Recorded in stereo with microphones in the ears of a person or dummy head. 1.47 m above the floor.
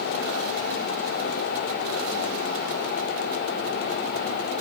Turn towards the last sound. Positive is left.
No sound to turn to.